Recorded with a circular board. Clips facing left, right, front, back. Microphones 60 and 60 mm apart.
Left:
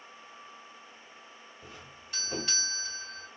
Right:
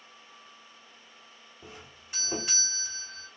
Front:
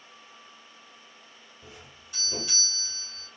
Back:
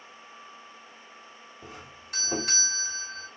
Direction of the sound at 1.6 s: 165° right.